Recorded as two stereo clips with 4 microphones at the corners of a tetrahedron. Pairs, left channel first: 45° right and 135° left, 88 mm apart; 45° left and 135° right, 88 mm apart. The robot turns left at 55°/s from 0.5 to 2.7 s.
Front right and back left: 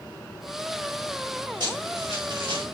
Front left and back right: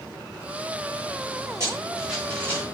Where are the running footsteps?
170° left, 6 m; by 2.6 s 105° left, 5 m.